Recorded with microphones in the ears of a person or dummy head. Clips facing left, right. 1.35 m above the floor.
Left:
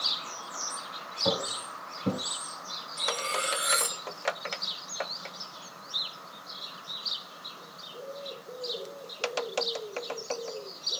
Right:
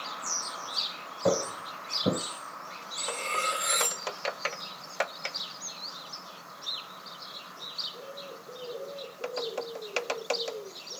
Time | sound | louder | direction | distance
1.2 | footsteps | right 4 dB | 60° right (ahead or behind) | 2.5 m
3.0 | cutlery clinking | left 2 dB | 10° left (ahead or behind) | 1.8 m